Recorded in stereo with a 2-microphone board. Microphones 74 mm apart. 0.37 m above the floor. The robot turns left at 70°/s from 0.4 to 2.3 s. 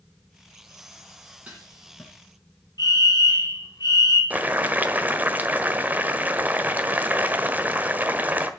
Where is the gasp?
No gasp in this recording.